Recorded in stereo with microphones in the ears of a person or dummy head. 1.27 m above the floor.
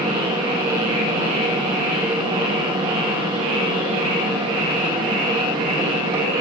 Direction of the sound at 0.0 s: 25° right (ahead or behind).